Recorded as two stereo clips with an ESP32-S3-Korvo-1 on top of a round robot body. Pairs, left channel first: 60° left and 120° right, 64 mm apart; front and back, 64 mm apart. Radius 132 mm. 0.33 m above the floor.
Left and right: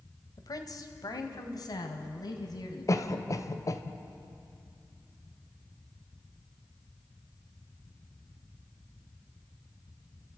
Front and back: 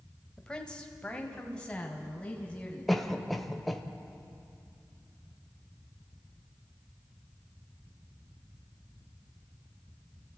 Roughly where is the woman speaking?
Left.